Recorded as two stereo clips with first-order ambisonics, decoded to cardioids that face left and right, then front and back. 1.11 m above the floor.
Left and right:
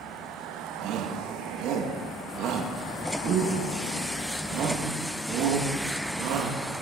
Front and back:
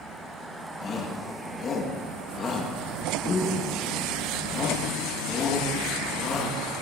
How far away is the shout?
About 1.9 m.